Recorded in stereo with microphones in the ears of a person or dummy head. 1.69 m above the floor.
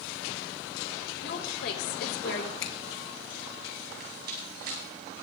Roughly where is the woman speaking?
Left.